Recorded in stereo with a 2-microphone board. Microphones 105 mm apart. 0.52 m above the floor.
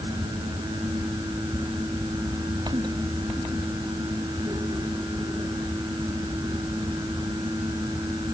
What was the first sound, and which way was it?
Only background noise.